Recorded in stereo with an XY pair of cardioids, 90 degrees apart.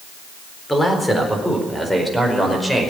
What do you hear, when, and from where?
0.7 s a man speaking: 10° left, 4 m; by 2.9 s 5° left, 5.5 m